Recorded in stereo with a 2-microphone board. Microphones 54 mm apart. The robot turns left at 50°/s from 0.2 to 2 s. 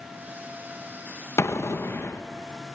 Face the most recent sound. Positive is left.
turn(degrees=60)